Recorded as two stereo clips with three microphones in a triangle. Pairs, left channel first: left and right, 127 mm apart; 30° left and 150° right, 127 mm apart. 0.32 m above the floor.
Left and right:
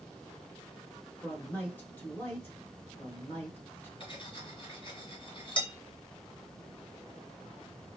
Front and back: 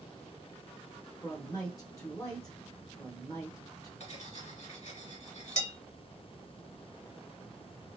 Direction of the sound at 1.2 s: 35° left.